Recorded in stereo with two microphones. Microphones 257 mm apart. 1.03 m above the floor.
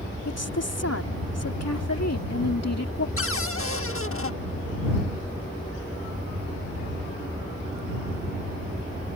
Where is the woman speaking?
75° left (ahead or behind).